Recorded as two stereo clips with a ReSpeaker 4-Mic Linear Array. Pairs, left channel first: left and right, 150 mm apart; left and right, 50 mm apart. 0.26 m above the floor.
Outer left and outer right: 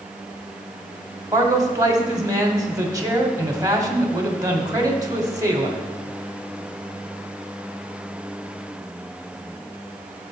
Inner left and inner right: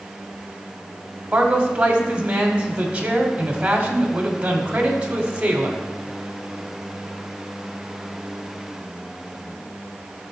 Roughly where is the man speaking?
Right.